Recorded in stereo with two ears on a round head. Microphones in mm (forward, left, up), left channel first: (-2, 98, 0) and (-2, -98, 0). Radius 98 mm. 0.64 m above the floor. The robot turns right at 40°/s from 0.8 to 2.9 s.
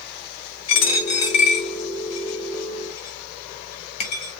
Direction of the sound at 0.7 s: 65° left (ahead or behind).